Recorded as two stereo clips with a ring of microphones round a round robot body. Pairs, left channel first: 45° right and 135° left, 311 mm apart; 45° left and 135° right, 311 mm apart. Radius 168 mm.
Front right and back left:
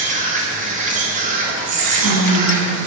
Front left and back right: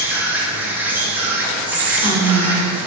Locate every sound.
0.0 s an insect: 150° left, 2 m
1.7 s whispering: 150° left, 2.5 m